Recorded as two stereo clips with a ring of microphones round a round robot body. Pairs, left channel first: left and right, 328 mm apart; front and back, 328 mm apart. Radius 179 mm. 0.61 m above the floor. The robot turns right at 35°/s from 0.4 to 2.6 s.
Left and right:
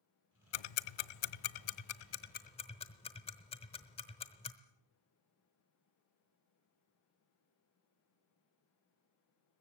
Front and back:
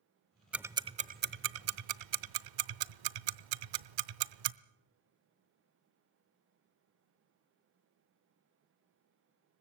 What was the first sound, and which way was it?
Ticking, 95° left.